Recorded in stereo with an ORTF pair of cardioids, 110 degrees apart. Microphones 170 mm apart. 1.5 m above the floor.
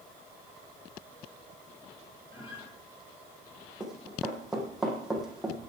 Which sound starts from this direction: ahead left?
A guitar, at 2.3 s.